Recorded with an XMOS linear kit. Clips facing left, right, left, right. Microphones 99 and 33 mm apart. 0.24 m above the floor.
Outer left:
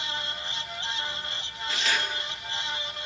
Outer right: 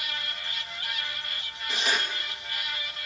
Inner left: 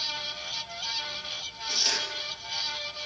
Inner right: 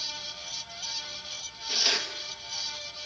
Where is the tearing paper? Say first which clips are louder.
Even, inner right 2 dB; 15° right (ahead or behind), 3 m.